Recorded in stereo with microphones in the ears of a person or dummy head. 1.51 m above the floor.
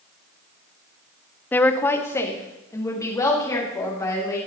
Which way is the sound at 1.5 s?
5° left (ahead or behind).